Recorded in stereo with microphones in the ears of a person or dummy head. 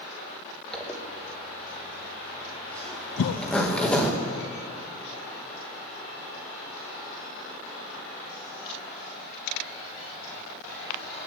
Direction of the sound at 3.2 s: 70° left (ahead or behind).